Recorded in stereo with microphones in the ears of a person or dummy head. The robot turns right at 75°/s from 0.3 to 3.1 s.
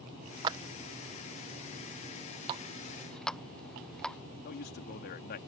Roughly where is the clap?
Right.